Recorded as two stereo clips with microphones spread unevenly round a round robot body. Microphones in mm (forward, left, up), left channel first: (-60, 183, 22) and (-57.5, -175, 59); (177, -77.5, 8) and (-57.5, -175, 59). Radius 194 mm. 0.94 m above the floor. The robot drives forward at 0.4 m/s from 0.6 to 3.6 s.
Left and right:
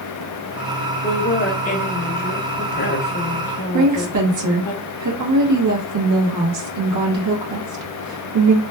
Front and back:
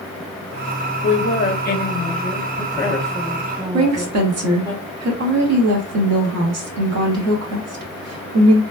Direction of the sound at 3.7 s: 130° right.